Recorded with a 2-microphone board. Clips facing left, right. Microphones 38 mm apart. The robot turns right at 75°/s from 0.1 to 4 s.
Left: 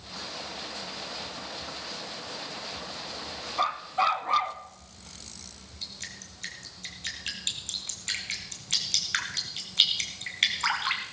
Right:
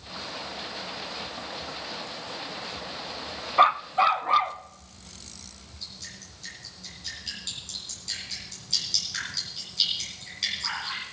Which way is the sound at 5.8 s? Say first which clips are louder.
Left 2 dB; 60° left (ahead or behind).